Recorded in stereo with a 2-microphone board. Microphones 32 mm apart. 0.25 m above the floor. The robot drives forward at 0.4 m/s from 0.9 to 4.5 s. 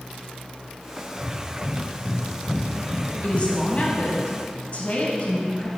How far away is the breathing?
About 1.3 m.